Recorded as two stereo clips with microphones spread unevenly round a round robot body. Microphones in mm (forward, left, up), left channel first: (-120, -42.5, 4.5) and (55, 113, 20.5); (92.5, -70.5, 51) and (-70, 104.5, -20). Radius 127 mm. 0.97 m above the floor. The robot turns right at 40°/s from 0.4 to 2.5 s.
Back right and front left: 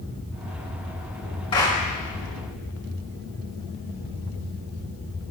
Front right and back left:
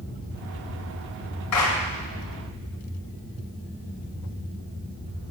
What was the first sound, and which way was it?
A clap, 65° right.